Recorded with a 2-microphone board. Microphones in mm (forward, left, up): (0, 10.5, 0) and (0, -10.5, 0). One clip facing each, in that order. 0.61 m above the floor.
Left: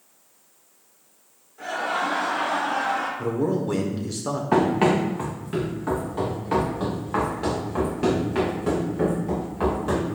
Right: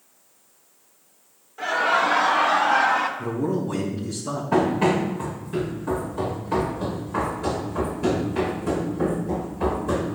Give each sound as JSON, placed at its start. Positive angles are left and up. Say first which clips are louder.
{"t": 1.6, "sound": "laughter", "louder": "right 5 dB", "side_deg": -45, "distance_m": 1.5}
{"t": 3.2, "sound": "a man speaking", "louder": "left 1 dB", "side_deg": 55, "distance_m": 1.7}
{"t": 4.5, "sound": "running footsteps", "louder": "left 1 dB", "side_deg": 35, "distance_m": 3.5}